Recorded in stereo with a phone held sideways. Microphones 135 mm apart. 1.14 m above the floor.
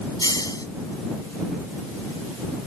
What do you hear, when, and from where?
0.2 s a hiss: 30° left (ahead or behind)